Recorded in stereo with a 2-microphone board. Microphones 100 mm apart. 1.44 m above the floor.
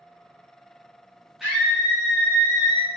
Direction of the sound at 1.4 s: 5° right (ahead or behind).